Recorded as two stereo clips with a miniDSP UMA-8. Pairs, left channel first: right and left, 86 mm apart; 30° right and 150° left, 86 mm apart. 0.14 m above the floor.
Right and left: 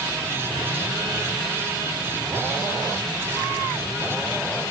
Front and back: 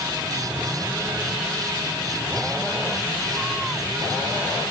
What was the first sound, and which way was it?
Only background noise.